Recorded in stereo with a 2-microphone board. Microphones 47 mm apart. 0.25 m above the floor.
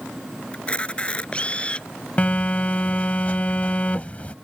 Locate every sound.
0.5 s a camera shutter: 25° left (ahead or behind)
2.2 s a phone buzzing: 30° left (ahead or behind)